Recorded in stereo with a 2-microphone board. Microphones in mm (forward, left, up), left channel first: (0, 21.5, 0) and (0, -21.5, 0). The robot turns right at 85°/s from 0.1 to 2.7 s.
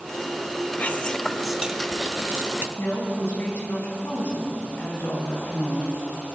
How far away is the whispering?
About 1.1 m.